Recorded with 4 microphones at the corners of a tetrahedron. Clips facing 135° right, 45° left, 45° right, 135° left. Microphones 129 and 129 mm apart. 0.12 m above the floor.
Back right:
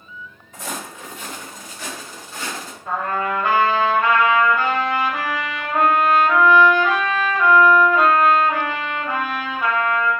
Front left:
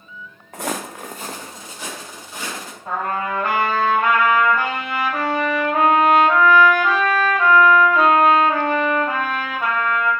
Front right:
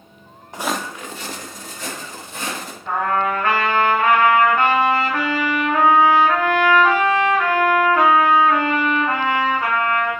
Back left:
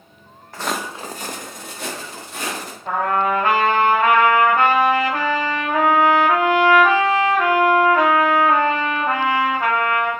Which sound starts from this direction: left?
A trumpet, at 2.9 s.